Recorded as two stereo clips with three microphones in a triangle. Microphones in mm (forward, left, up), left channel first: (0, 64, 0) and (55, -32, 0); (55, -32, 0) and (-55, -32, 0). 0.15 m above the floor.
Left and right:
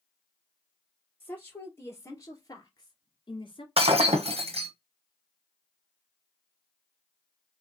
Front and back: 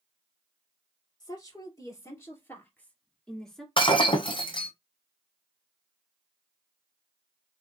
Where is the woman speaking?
45° left, 2.5 m; by 3.7 s 90° left, 2 m.